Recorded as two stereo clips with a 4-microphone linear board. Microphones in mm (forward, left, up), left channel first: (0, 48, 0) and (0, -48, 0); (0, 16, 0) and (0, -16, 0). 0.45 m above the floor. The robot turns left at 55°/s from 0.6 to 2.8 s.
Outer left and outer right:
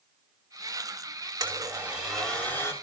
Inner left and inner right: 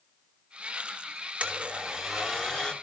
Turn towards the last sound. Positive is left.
turn(degrees=145)